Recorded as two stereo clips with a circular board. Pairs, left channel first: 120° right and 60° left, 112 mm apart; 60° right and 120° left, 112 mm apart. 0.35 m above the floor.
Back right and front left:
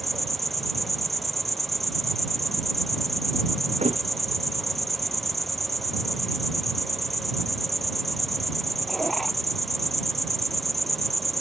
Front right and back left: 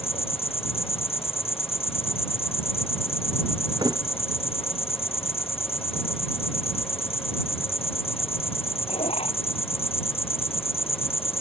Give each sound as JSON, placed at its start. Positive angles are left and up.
{"t": 0.0, "sound": "an insect", "azimuth_deg": -30}
{"t": 3.8, "sound": "a thud", "azimuth_deg": 70}